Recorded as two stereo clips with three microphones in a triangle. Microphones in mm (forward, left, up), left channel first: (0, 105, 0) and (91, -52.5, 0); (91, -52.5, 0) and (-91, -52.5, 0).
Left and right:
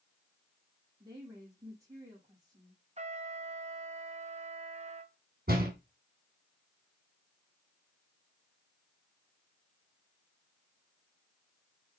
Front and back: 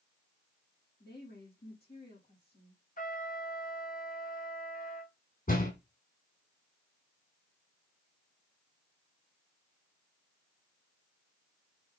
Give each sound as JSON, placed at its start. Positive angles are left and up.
{"t": 1.0, "sound": "a woman speaking", "azimuth_deg": 10, "distance_m": 4.5}
{"t": 3.0, "sound": "a trumpet", "azimuth_deg": -20, "distance_m": 0.9}
{"t": 5.5, "sound": "a door slam", "azimuth_deg": -30, "distance_m": 3.0}